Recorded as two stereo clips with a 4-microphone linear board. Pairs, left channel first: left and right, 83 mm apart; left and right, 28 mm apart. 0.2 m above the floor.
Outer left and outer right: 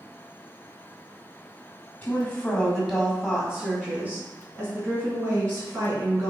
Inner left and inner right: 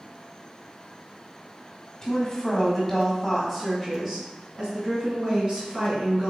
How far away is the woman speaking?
About 1.5 m.